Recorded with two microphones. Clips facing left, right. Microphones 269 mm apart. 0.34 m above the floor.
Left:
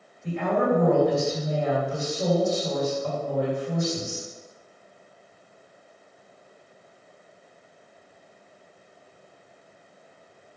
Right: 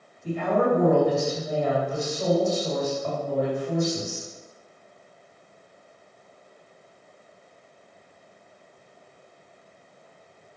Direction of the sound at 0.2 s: 35° left (ahead or behind).